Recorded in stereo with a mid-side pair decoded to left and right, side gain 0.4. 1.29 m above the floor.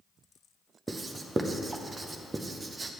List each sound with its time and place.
0.9 s writing: 35° right, 0.7 m